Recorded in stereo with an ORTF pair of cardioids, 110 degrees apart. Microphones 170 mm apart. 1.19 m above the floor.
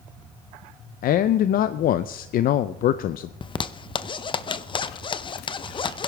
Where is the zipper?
30° left, 0.6 m.